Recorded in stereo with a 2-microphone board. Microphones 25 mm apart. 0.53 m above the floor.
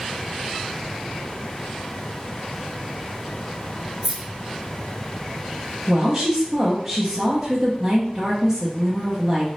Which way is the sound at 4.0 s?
5° left (ahead or behind).